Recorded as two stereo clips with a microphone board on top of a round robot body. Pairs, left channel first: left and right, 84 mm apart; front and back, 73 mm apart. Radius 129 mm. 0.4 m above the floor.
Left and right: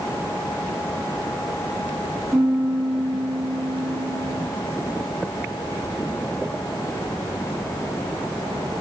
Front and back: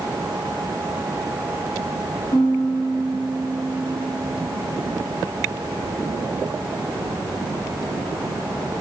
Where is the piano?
10° right, 2.5 m.